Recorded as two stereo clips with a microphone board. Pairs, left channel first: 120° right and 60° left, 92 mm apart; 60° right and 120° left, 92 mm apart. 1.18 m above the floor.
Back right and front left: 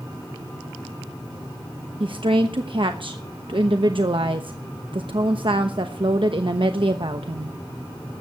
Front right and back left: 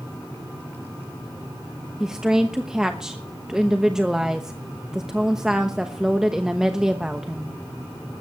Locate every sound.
2.0 s a woman speaking: 35° left, 1.0 m